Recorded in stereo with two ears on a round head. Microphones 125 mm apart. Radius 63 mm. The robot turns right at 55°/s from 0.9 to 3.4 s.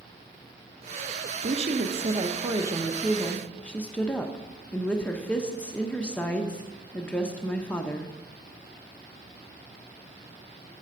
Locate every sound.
1.4 s a woman speaking: 95° right, 0.8 m; by 8.1 s 10° left, 0.8 m